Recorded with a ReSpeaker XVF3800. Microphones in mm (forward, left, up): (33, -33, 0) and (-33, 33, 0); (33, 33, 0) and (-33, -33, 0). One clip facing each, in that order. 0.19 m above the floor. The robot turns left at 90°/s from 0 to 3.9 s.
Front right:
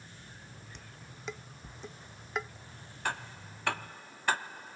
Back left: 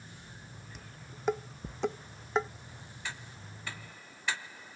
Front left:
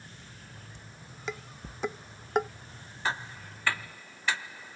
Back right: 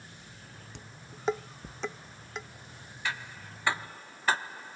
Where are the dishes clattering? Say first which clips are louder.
Back left 1 dB, back right 1 dB; 140° right; by 2.5 s 65° left.